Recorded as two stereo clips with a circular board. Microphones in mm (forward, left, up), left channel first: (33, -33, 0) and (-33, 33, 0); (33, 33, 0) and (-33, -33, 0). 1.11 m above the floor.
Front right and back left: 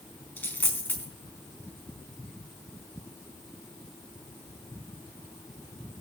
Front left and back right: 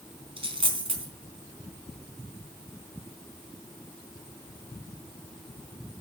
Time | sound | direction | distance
0.4 | a dropped coin | 115° right | 3.5 m